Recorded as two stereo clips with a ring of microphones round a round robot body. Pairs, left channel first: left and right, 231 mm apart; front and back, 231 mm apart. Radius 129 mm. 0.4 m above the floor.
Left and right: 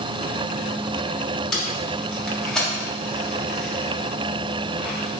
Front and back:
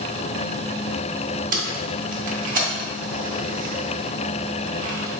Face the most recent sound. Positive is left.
turn(degrees=175)